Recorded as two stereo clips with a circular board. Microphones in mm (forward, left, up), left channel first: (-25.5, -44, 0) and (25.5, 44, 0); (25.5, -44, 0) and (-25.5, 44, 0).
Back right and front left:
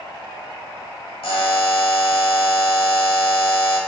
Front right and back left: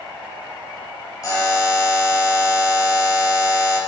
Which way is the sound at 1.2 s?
110° right.